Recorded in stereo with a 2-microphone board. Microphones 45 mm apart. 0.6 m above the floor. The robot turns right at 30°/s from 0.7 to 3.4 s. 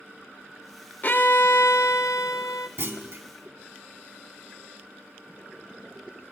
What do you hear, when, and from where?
1.0 s a violin: 40° left, 0.6 m; by 2.7 s 90° left, 0.6 m
2.8 s a clunk: 55° right (ahead or behind), 0.9 m